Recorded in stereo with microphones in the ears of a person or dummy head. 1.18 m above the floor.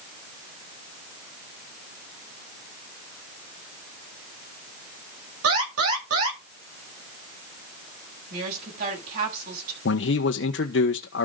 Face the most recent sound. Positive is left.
turn(degrees=50)  # may be behind; listen again after turning